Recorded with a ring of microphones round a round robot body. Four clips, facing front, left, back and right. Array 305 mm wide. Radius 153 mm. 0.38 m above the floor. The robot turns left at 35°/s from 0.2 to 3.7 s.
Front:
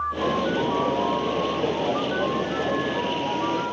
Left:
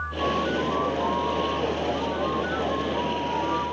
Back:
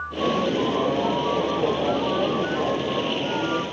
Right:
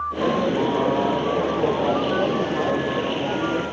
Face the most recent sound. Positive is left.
No sound to turn to.